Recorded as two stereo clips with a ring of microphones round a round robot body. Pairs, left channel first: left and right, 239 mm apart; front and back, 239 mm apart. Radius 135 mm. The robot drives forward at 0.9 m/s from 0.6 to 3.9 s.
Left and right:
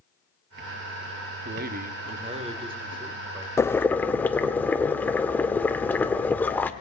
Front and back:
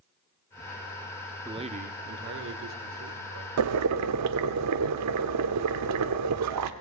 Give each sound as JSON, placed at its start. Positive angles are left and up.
{"t": 1.4, "sound": "a man speaking", "azimuth_deg": -110, "distance_m": 0.9}
{"t": 3.6, "sound": "boiling", "azimuth_deg": 170, "distance_m": 0.6}